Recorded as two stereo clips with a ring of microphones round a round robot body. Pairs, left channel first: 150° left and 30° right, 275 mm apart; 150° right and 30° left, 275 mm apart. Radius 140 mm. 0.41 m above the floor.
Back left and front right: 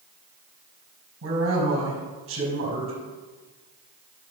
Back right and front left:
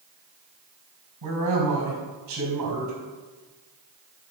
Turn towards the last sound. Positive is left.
turn(degrees=10)